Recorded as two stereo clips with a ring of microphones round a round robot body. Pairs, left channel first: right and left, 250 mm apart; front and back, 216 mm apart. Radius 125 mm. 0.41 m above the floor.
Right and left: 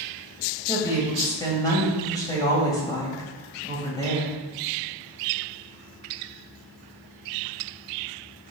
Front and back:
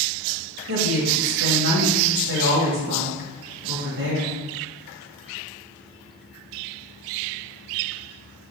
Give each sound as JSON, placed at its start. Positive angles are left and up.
{"t": 0.7, "sound": "a woman speaking", "azimuth_deg": -165, "distance_m": 2.0}